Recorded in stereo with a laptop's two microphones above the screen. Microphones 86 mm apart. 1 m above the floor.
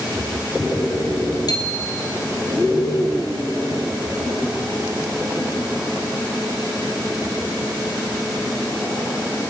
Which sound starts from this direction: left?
A bicycle bell, at 1.5 s.